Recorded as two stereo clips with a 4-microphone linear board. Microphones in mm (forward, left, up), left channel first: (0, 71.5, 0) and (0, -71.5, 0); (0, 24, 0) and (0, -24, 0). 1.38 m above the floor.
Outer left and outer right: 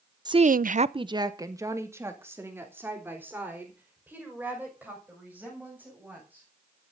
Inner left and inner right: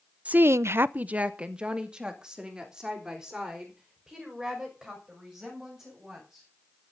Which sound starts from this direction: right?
A woman speaking, at 0.2 s.